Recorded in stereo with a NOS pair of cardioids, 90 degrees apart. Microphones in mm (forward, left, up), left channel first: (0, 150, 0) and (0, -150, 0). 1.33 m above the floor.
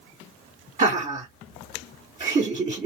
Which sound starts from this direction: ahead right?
Laughter, at 0.8 s.